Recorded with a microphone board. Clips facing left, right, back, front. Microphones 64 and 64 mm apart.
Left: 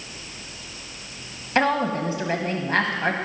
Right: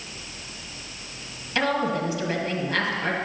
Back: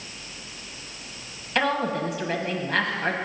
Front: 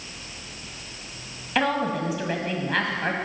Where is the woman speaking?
85° left, 1.2 m.